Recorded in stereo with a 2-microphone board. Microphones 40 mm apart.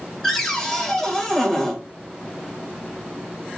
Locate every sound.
0.2 s a cupboard door: 5° left (ahead or behind), 2.5 m